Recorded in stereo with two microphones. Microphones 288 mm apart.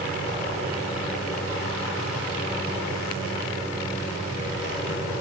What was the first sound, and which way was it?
Only background noise.